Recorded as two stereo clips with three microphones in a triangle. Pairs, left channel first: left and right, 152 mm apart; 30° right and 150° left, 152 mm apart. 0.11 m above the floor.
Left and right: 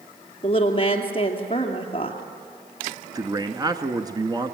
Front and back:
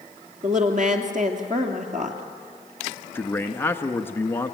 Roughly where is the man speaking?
Right.